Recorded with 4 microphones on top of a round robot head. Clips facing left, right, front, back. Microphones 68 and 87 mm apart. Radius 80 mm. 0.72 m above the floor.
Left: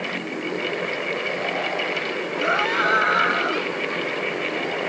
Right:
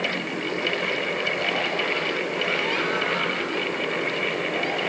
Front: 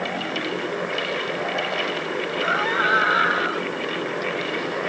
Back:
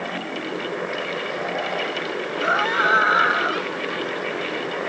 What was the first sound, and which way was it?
A scream, 115° left.